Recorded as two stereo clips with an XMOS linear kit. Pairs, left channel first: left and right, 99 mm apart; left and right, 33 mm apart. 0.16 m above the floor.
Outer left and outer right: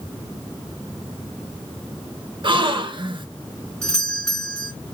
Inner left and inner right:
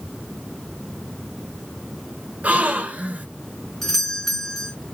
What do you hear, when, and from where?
2.4 s a gasp: 55° right (ahead or behind), 1.7 m
3.8 s a doorbell: 10° left (ahead or behind), 3 m